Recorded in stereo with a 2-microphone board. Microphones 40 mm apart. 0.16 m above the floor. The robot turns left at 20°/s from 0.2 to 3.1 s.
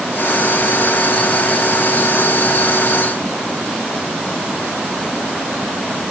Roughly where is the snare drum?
I don't hear a snare drum.